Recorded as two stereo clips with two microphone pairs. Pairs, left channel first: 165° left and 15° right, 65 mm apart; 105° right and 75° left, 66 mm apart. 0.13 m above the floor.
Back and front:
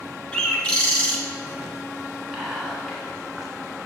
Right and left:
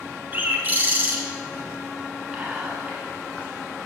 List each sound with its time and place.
0.3 s a bird: 95° left, 0.9 m
2.3 s whispering: 45° left, 1.0 m